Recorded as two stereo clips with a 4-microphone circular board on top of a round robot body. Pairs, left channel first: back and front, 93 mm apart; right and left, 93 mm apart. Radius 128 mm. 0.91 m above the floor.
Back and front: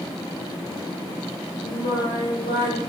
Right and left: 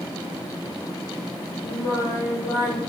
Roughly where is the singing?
Behind right.